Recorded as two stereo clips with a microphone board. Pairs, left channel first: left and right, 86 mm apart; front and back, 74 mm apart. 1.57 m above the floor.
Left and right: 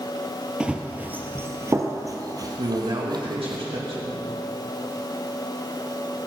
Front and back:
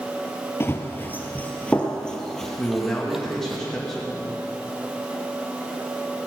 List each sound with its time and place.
0.6 s running footsteps: 20° right, 1.8 m; by 3.6 s 100° right, 2.5 m
2.6 s a man speaking: 85° right, 2 m